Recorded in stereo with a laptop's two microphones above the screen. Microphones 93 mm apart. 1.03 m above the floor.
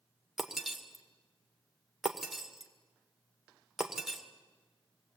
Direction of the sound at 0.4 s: 5° right (ahead or behind).